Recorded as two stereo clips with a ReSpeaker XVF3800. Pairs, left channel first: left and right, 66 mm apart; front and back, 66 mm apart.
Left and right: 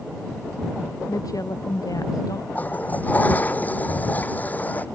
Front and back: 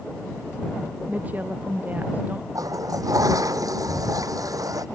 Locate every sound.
1.1 s a woman speaking: 115° left
2.5 s a toilet flushing: 155° left